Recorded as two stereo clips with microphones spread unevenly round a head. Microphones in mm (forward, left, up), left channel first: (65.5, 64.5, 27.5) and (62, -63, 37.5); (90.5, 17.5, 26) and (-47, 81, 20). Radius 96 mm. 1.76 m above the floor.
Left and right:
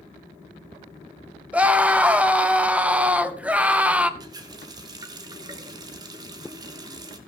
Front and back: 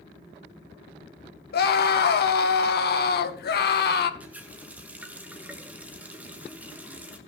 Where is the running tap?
125° right, 1.0 m.